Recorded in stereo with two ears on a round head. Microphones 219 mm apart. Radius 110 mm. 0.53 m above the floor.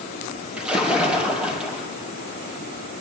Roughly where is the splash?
Centre.